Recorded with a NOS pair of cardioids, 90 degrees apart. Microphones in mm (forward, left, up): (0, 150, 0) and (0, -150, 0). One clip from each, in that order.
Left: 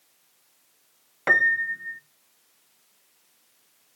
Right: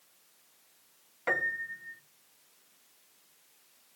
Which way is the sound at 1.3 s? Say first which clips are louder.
Left 11 dB; 50° left.